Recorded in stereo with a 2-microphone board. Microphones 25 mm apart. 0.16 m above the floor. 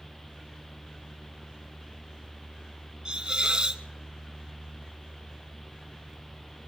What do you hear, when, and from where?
3.0 s a hiss: 30° right (ahead or behind), 1.3 m